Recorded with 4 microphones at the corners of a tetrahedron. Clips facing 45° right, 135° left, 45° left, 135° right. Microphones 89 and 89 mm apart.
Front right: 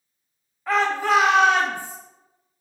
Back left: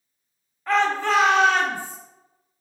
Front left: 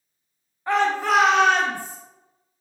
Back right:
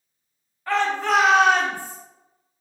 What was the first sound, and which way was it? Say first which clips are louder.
A shout: even, front left 1 dB; 35° left.